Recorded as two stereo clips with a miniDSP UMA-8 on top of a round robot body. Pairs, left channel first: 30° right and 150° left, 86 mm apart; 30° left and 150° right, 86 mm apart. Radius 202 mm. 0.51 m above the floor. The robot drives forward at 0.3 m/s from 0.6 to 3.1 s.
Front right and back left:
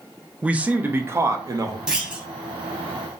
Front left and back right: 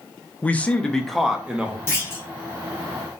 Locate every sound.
0.4 s a man speaking: 90° left, 0.7 m; by 1.8 s 140° left, 0.8 m
1.9 s a clunk: 75° left, 1.2 m; by 2.2 s 85° left, 1.2 m